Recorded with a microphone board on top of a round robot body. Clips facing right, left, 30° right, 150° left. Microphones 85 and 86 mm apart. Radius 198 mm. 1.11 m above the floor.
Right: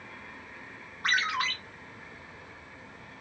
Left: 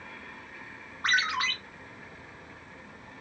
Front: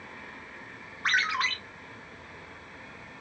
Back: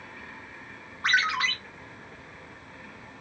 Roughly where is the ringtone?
Behind left.